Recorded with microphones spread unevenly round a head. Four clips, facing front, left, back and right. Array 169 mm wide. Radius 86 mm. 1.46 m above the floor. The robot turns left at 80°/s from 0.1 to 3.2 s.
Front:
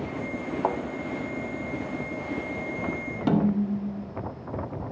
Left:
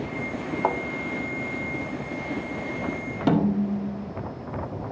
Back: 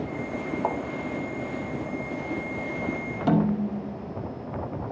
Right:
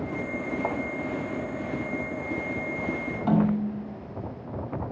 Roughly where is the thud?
Ahead left.